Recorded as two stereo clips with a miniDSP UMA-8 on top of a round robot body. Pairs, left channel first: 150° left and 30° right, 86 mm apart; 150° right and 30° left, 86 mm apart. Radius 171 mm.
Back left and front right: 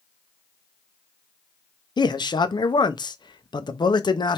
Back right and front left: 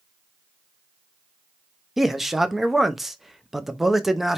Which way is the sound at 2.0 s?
120° left.